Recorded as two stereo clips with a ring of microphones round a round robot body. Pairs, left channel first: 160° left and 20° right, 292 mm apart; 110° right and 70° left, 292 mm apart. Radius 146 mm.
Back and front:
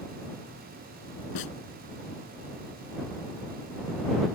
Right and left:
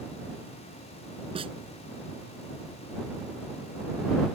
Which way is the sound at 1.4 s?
140° left.